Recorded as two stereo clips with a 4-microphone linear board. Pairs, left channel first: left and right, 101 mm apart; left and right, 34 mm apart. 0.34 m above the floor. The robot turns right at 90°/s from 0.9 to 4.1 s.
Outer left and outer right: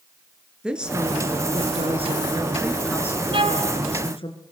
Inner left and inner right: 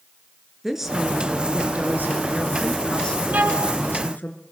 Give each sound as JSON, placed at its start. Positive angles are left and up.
{"t": 0.6, "sound": "a woman speaking", "azimuth_deg": -170, "distance_m": 4.0}
{"t": 3.3, "sound": "a violin", "azimuth_deg": -115, "distance_m": 1.9}